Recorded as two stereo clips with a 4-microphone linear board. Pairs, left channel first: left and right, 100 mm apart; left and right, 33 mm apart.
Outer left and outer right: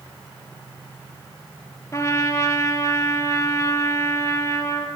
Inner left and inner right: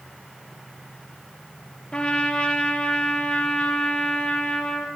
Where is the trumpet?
30° left (ahead or behind), 3.5 m.